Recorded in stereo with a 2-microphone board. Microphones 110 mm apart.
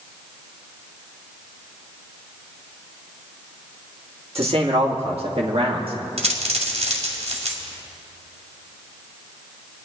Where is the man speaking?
60° right (ahead or behind), 2.0 m; by 5.9 s 55° right (ahead or behind), 2.0 m.